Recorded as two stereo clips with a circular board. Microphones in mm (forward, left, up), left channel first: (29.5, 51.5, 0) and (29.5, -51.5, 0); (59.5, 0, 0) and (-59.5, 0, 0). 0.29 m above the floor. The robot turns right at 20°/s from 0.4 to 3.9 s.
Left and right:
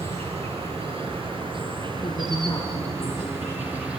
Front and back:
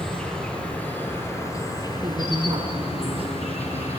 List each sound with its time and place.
0.0 s an insect: 85° right, 8.5 m; by 4.0 s 15° right, 8.5 m
2.0 s a woman speaking: 125° left, 4 m; by 3.9 s 165° left, 4 m